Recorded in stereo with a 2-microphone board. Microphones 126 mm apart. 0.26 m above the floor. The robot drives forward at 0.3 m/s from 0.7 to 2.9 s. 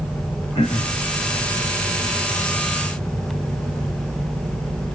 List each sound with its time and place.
0.6 s throat clearing: 55° left (ahead or behind), 4.5 m